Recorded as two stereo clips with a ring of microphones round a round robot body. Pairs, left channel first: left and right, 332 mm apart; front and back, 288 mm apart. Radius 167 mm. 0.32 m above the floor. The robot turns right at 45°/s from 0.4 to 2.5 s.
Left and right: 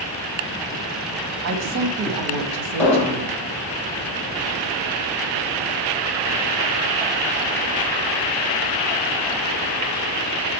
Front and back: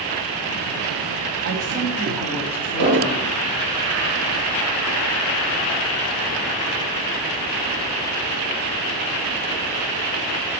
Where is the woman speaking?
130° right, 1.7 m; by 3.4 s 80° right, 1.7 m.